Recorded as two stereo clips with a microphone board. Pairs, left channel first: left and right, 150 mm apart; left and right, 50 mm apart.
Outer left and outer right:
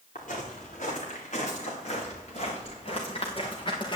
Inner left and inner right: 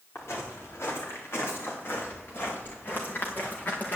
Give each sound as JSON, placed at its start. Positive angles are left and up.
{"t": 0.1, "sound": "footsteps", "side_deg": 70, "distance_m": 4.5}